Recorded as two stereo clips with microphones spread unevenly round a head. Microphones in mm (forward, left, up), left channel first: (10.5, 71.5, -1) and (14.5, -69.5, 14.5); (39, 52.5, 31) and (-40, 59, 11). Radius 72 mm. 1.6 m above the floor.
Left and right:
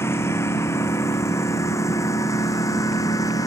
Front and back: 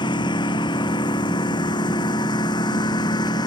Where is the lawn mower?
20° left; by 3.5 s 25° left.